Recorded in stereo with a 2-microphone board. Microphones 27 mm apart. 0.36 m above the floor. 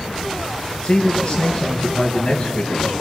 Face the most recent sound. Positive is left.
turn(degrees=35)  # may be behind; listen again after turning